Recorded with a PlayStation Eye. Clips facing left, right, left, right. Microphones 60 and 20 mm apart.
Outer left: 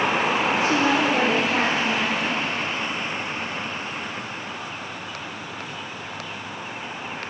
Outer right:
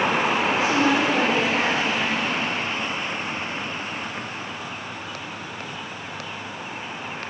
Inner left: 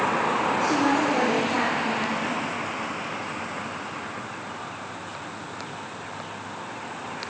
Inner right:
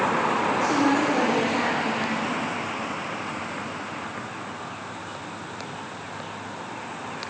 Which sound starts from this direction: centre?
A woman speaking, at 0.6 s.